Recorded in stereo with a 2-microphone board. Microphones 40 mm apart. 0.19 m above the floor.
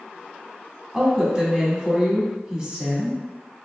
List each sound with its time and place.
0.9 s a woman speaking: 20° right (ahead or behind), 1.0 m